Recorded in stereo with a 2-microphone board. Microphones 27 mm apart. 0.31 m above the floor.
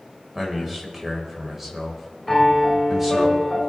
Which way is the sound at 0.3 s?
15° right (ahead or behind).